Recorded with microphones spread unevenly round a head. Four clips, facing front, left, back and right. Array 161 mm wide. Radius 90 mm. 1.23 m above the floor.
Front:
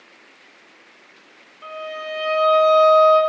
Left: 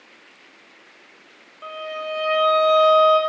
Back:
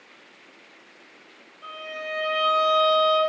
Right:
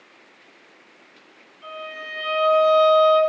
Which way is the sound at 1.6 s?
70° left.